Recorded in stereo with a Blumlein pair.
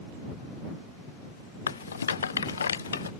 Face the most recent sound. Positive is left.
turn(degrees=70)